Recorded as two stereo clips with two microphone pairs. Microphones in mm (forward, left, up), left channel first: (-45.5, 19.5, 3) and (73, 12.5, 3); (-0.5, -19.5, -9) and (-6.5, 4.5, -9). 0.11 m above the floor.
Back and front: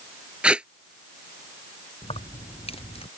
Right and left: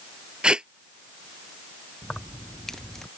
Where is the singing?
No singing in this recording.